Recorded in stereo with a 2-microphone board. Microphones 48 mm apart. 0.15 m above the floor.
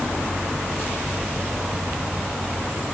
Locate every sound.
Only background noise.